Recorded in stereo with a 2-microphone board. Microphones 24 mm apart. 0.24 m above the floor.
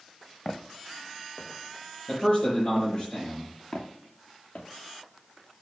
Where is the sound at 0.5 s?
45° left (ahead or behind), 1.1 m; by 2.9 s 75° left (ahead or behind), 4 m.